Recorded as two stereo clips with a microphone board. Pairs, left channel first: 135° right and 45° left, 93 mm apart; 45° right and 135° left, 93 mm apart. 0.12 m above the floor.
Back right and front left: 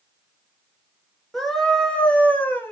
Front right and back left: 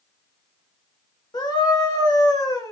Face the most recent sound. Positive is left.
turn(degrees=-80)